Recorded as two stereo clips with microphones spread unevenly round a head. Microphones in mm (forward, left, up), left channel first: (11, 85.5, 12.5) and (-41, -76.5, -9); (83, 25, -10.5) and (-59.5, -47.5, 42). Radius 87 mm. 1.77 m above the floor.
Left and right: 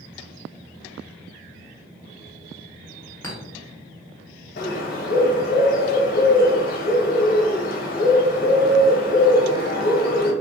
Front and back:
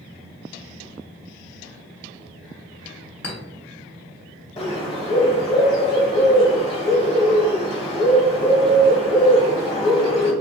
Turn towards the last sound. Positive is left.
turn(degrees=90)